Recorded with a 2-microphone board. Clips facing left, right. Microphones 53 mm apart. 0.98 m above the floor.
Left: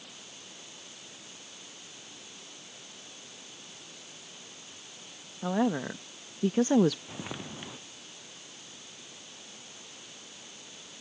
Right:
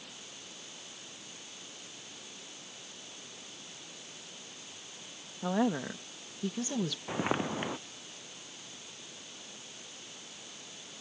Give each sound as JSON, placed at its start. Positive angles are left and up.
{"t": 5.4, "sound": "a woman speaking", "side_deg": 5}
{"t": 7.1, "sound": "footsteps", "side_deg": -40}